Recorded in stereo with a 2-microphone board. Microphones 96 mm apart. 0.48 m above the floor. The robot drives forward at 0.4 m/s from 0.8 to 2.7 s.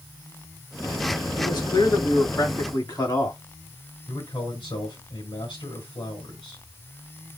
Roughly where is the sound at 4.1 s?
Left.